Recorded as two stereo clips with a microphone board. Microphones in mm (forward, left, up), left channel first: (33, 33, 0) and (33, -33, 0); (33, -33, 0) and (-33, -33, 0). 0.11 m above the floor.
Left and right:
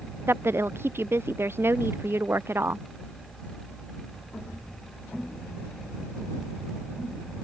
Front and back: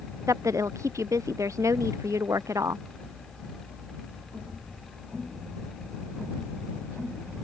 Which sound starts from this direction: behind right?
A woman speaking, at 0.3 s.